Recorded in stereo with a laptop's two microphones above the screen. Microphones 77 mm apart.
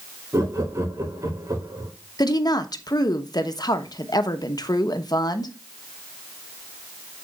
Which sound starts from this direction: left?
A woman speaking, at 2.2 s.